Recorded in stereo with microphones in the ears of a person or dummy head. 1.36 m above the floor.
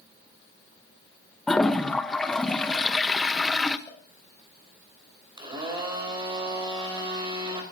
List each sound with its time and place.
1.5 s a toilet flushing: centre (ahead or behind), 1.0 m
3.9 s a cowbell: 30° left (ahead or behind), 6.5 m
5.4 s a blender: 30° right (ahead or behind), 4 m